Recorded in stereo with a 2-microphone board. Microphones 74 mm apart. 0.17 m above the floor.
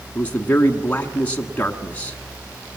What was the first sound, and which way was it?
A man speaking, 20° left (ahead or behind).